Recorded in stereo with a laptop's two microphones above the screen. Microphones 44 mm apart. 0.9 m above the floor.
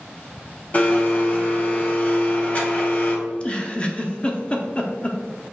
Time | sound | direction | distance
0.7 | a blender | 35° left (ahead or behind) | 1.0 m
3.3 | a giggle | 30° left (ahead or behind) | 0.5 m